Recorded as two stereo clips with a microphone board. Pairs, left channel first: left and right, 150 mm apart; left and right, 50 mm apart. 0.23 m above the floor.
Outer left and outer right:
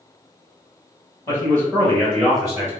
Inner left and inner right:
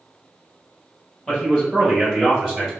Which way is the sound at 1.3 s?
15° left (ahead or behind).